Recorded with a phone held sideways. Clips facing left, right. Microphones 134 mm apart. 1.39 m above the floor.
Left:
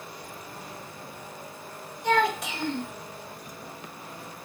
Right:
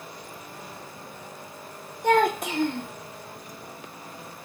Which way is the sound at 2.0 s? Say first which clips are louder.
Right 3 dB; 50° right (ahead or behind).